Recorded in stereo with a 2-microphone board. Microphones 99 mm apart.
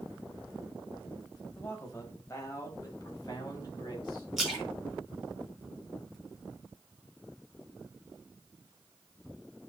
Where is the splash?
Centre (ahead or behind), 4.5 m.